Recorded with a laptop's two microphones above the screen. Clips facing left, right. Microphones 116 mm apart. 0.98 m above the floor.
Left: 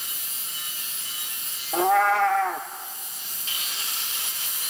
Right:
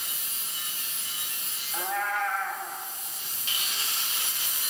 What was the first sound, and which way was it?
A cat meowing, 85° left.